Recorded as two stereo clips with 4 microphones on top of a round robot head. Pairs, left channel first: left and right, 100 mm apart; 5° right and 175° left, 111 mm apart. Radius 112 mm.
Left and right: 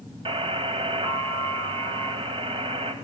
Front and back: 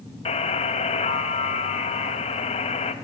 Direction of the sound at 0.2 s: 45° right.